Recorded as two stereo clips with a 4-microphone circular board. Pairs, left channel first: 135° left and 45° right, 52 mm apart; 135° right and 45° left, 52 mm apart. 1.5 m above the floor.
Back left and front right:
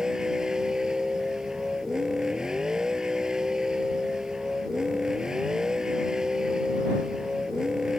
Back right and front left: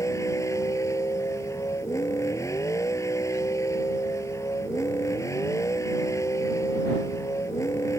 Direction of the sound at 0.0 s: 125° right.